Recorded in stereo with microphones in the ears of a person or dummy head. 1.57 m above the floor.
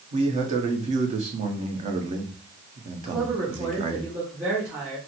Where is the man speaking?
40° right (ahead or behind), 1.0 m.